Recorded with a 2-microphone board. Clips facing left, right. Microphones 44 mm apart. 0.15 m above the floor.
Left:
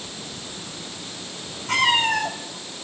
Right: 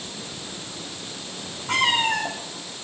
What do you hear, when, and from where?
1.7 s a cat meowing: 5° right (ahead or behind), 3.5 m